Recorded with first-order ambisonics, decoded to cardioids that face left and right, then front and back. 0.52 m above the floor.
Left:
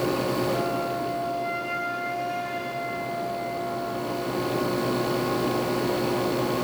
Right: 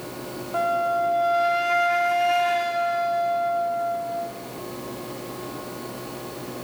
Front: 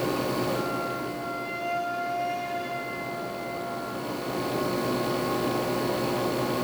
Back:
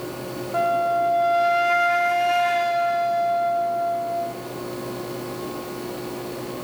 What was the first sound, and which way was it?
A flute, 140° right.